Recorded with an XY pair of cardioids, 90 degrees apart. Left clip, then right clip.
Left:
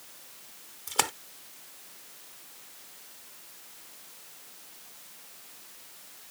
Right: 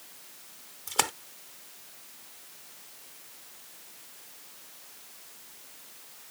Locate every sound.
0.9 s a splash: 5° right